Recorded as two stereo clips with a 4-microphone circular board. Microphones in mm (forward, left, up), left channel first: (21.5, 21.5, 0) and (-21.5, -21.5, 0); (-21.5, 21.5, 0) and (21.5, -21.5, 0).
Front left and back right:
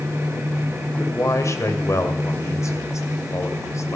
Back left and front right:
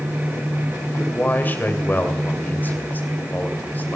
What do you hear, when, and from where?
1.0 s a man speaking: 80° left, 2 m